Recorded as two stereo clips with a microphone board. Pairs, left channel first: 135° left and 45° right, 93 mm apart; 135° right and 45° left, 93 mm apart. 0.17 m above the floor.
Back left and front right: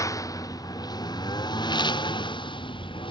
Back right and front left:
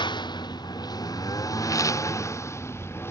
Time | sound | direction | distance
0.0 | a lawn mower | 170° right | ?